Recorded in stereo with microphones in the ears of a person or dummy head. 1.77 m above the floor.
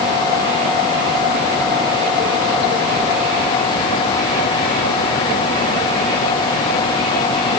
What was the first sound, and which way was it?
Only background noise.